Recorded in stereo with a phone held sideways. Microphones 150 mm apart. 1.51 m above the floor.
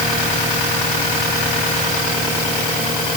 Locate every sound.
Only background noise.